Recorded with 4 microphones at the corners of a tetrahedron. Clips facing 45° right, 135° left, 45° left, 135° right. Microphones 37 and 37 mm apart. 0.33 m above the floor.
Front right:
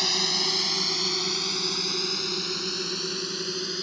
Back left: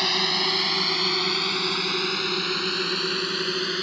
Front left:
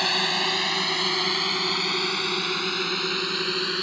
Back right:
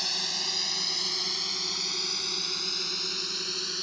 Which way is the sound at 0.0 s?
75° left.